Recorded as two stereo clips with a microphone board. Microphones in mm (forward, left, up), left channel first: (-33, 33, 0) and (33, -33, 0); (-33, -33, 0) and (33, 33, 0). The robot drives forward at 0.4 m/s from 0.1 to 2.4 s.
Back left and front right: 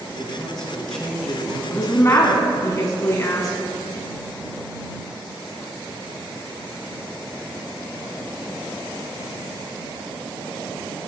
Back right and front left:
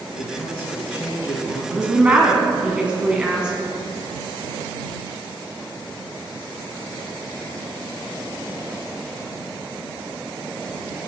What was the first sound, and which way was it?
A man speaking, 140° right.